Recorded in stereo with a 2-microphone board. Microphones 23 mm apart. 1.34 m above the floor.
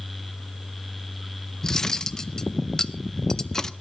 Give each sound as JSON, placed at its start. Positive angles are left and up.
{"t": 1.6, "sound": "cutlery clinking", "side_deg": 20, "distance_m": 0.6}